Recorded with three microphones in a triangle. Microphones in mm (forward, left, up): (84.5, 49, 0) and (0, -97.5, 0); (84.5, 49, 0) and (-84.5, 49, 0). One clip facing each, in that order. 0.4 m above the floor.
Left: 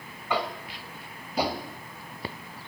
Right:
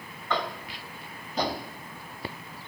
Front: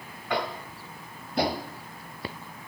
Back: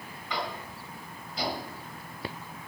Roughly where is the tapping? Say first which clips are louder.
Left 1 dB, front 5 dB; ahead.